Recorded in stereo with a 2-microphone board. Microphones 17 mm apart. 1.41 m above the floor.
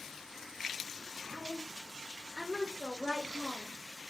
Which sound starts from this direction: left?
A woman speaking, at 1.3 s.